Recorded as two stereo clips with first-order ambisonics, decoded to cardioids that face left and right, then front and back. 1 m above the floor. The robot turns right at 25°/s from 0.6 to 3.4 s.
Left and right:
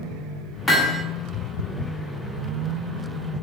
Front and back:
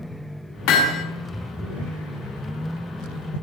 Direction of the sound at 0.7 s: 15° left.